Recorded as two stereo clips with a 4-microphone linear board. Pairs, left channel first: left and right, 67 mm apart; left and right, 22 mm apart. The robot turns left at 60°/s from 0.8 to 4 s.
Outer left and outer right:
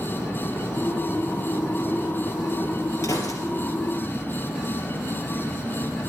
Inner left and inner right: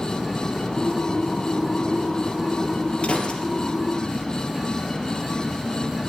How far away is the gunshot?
About 3.5 m.